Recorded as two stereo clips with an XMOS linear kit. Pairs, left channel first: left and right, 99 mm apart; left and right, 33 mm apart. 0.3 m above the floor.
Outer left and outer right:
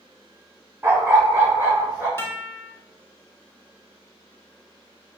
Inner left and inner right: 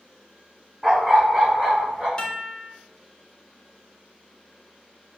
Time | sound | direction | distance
0.8 | a dog barking | 25° right (ahead or behind) | 0.6 m
2.2 | a guitar | 25° left (ahead or behind) | 0.6 m